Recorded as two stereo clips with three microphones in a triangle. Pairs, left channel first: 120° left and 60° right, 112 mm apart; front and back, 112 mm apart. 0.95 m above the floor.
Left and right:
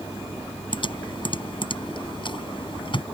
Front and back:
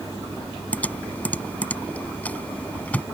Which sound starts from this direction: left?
Typing on a keyboard, at 0.7 s.